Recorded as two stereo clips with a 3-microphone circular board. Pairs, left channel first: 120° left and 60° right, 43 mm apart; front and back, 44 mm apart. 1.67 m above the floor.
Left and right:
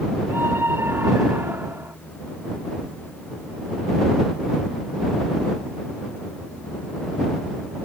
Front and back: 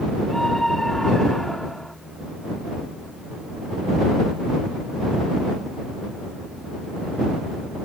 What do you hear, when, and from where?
0.3 s a scream: 80° right